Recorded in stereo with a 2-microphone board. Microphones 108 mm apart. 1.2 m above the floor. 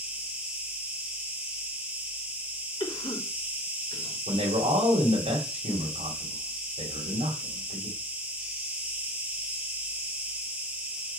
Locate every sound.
0.0 s an insect: 10° right (ahead or behind), 2.0 m
2.8 s a cough: 50° left (ahead or behind), 3 m
4.3 s a man speaking: 85° right, 3 m